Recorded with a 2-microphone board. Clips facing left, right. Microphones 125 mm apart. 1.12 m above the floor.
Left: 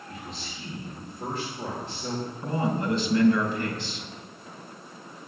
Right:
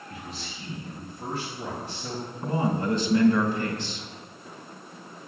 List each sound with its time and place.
0.1 s a man speaking: 30° left (ahead or behind), 3.5 m
2.4 s a man speaking: 20° right (ahead or behind), 5 m